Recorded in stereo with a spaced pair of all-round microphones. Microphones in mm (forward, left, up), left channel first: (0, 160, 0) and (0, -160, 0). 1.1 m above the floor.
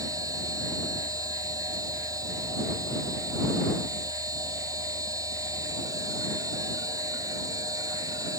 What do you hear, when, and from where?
0.0 s a machine running: 10° right (ahead or behind)